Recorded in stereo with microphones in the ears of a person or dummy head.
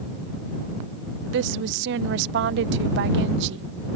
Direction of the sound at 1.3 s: 75° right (ahead or behind).